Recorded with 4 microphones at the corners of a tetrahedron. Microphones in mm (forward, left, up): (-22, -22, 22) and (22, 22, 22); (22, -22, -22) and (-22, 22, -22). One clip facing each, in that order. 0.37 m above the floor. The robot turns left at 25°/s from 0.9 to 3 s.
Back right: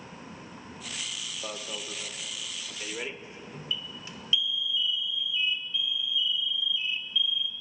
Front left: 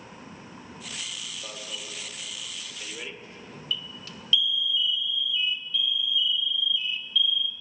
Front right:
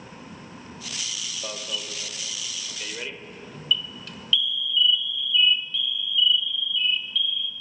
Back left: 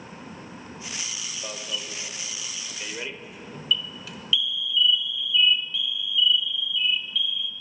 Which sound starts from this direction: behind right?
An alarm, at 1.4 s.